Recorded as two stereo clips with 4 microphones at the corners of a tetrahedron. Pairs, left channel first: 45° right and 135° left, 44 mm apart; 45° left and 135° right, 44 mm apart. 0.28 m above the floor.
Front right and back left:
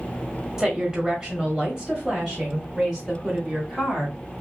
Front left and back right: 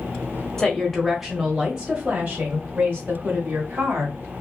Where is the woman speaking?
95° left, 1.3 m; by 4.2 s 155° right, 2.5 m.